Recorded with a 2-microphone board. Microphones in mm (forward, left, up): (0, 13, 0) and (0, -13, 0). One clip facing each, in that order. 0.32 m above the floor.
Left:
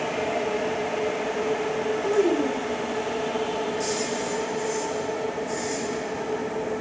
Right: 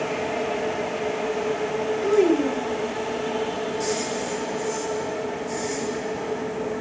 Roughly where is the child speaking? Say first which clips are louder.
Right 4 dB; right.